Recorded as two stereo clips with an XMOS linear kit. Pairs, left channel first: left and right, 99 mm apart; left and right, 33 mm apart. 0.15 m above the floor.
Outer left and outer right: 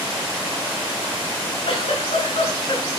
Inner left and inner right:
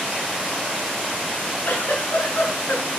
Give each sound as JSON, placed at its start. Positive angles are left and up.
{"t": 1.6, "sound": "a giggle", "side_deg": 75, "distance_m": 4.5}